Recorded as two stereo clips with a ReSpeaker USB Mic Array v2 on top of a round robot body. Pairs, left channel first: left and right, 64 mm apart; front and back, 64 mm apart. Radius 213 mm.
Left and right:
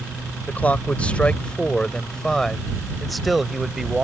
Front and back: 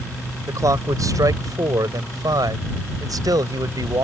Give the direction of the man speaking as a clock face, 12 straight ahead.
7 o'clock.